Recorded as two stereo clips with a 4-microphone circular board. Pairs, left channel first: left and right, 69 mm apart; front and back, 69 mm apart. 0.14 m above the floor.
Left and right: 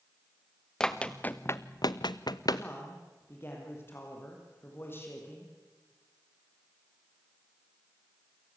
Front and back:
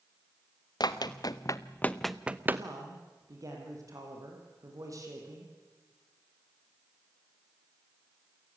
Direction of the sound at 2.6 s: 145° left.